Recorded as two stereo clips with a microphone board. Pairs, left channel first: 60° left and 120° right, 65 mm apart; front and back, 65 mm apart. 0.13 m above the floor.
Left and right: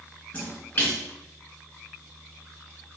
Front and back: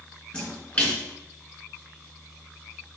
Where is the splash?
30° left, 1.8 m.